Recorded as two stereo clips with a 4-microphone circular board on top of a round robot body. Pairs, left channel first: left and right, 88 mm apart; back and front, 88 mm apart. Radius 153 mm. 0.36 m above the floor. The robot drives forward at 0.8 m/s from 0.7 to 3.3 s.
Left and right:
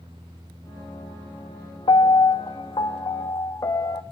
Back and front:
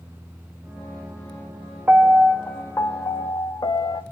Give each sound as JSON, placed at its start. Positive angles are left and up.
{"t": 1.9, "sound": "a piano", "azimuth_deg": 75, "distance_m": 0.9}